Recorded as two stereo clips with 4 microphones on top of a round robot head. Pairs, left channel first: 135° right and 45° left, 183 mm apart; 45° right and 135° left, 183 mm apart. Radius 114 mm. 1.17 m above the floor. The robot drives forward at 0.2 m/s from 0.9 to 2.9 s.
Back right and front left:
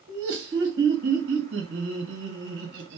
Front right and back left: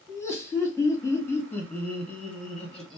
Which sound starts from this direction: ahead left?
Laughter, at 0.1 s.